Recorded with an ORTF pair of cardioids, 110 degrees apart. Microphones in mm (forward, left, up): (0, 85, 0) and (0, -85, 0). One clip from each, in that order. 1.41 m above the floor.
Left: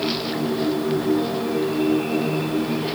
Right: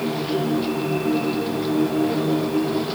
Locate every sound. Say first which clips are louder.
0.0 s a machine running: even; 65° right, 4.5 m